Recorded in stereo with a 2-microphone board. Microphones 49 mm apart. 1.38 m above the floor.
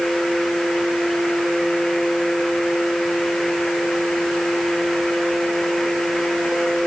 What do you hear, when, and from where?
Only background noise.